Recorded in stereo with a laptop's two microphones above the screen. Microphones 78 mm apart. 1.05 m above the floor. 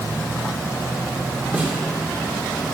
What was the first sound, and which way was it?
A snare drum, 25° right (ahead or behind).